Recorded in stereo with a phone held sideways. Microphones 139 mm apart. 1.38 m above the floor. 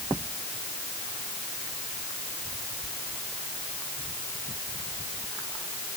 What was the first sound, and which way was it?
Only background noise.